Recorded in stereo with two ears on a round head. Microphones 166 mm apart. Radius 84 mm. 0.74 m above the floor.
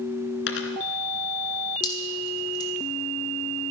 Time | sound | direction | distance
0.5 | a dropped coin | 65° left (ahead or behind) | 2 m
1.8 | dripping | 25° left (ahead or behind) | 2.5 m